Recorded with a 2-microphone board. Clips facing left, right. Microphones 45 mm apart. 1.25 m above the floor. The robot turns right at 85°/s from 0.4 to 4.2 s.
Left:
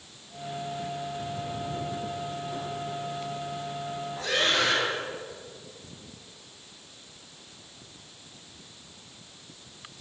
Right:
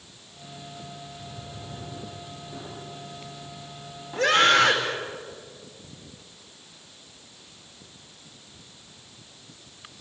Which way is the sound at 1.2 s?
65° left (ahead or behind).